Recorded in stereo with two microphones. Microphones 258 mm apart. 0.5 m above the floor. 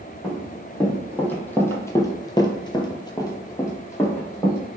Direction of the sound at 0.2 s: Centre (ahead or behind).